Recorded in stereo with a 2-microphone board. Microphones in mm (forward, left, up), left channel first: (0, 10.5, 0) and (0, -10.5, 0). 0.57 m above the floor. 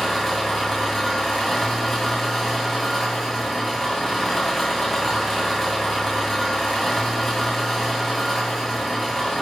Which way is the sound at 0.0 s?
10° left (ahead or behind).